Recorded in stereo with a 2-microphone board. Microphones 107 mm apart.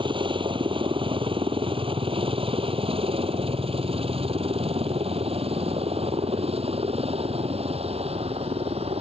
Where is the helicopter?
50° right (ahead or behind); by 9.0 s 70° right (ahead or behind).